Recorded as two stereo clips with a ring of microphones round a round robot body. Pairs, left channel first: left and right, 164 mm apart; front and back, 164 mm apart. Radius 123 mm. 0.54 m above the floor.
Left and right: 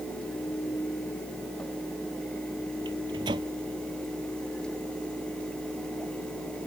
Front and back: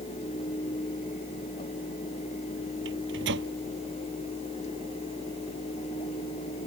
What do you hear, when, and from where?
2.9 s a microwave: 160° right